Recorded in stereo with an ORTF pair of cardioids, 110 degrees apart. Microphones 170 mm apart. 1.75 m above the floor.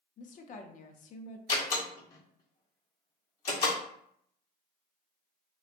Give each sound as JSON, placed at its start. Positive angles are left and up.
{"t": 0.2, "sound": "a woman speaking", "azimuth_deg": 50, "distance_m": 0.6}
{"t": 1.5, "sound": "a door slam", "azimuth_deg": 65, "distance_m": 1.6}